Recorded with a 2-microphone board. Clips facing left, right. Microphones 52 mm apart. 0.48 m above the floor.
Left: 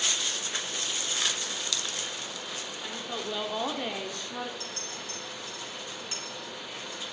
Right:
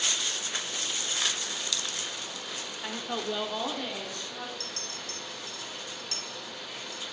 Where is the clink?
20° left (ahead or behind), 3.5 m.